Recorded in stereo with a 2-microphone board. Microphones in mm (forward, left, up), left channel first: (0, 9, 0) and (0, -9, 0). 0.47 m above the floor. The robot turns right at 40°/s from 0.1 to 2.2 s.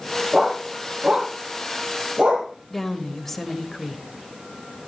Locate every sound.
0.3 s a dog barking: 25° right (ahead or behind), 3.5 m; by 2.5 s 80° right, 3.5 m
2.7 s a woman speaking: 15° left (ahead or behind), 2 m